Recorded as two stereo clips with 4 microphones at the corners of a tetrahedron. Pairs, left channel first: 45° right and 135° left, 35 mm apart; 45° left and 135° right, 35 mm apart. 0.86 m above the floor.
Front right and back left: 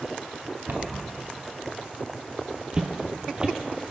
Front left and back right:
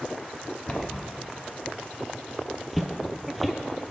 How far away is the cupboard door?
About 1.1 m.